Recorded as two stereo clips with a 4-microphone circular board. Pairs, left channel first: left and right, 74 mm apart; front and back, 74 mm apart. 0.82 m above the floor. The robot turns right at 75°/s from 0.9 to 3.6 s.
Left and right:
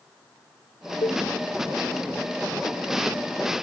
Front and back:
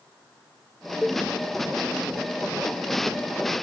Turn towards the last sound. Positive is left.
turn(degrees=-80)